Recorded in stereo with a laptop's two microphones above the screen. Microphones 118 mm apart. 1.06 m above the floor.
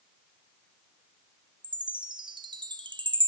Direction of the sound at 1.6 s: 40° right (ahead or behind).